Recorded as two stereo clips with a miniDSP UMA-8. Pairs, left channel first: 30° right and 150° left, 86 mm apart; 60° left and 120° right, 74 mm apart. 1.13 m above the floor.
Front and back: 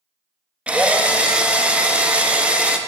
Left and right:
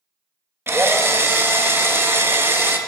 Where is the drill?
145° right, 0.5 m.